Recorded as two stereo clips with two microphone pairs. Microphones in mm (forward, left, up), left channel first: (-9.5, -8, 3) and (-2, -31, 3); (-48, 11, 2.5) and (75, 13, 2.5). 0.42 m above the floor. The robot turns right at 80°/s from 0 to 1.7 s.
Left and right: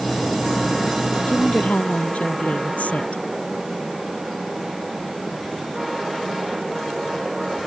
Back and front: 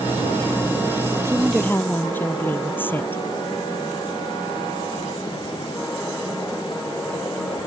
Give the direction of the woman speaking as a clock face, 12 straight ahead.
10 o'clock.